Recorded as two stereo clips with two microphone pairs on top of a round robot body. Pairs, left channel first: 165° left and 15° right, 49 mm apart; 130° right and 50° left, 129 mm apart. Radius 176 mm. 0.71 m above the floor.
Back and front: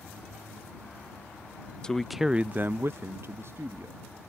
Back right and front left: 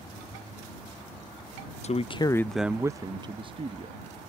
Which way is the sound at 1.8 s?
120° right.